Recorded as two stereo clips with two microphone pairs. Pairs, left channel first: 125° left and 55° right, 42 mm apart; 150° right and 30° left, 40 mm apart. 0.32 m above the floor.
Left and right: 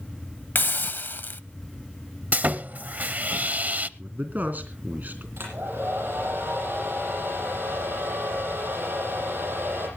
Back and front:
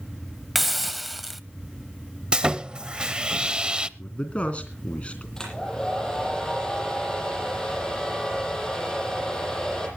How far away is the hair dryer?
About 7.5 m.